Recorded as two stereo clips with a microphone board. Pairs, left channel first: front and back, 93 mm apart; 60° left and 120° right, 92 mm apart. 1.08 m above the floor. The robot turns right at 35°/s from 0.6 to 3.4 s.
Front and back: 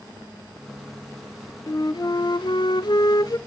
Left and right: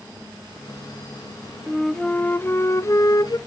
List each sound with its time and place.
1.7 s a flute: 30° right, 0.6 m; by 3.4 s 30° left, 0.6 m